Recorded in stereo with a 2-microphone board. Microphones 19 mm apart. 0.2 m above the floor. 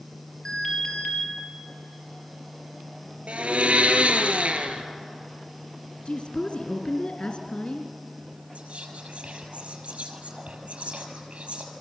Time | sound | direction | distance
0.5 | an alarm | 30° left (ahead or behind) | 4.5 m
3.3 | a blender | 75° right (ahead or behind) | 2 m
6.0 | a woman speaking | 55° left (ahead or behind) | 2.5 m
8.6 | whispering | 70° right (ahead or behind) | 5.5 m